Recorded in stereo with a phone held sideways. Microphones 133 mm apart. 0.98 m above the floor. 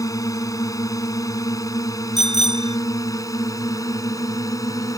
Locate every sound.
0.0 s a drone: 25° left (ahead or behind)
2.2 s a bicycle bell: 55° left (ahead or behind)